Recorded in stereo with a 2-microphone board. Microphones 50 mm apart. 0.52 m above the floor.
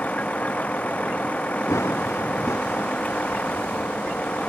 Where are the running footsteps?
80° left.